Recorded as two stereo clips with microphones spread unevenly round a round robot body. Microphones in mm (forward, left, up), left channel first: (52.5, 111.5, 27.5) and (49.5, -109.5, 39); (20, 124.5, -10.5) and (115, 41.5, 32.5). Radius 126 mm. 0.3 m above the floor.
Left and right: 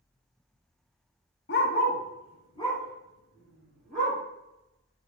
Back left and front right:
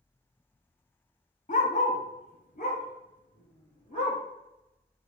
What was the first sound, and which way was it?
A dog barking, 135° left.